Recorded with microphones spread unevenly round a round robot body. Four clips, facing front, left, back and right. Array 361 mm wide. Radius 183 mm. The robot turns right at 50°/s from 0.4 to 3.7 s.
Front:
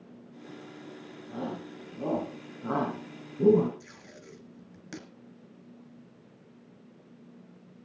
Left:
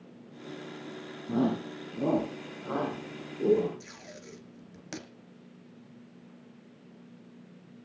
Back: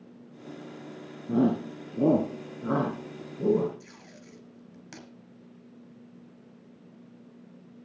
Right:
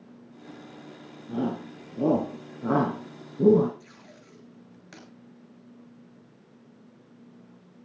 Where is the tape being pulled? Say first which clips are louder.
Left 3 dB, even; 40° left, 2.5 m.